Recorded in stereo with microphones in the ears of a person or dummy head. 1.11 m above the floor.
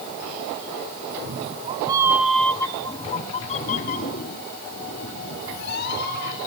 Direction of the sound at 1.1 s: 55° right (ahead or behind).